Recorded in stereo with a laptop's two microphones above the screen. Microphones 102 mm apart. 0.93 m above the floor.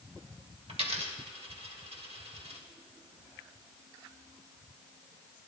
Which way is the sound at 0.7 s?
75° right (ahead or behind).